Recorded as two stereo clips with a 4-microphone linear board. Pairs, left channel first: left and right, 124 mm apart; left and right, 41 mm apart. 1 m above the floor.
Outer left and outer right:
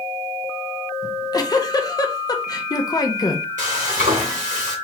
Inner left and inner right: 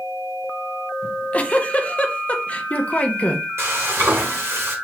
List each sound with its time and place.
1.0 s a giggle: 30° left (ahead or behind), 0.5 m
3.6 s frying: 90° right, 2 m